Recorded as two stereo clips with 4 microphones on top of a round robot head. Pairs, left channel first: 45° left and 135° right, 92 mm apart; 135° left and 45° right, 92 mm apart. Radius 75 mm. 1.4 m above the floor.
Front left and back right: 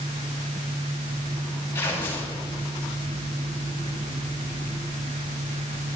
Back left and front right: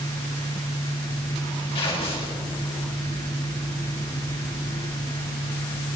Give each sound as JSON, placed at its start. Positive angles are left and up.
{"t": 1.8, "sound": "tearing paper", "azimuth_deg": 110, "distance_m": 9.0}